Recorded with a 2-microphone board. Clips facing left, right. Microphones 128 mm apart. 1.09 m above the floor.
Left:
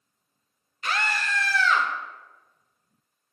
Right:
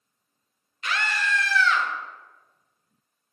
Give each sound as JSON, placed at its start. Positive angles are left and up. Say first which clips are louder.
{"t": 0.8, "sound": "a scream", "louder": "even", "side_deg": 40, "distance_m": 0.9}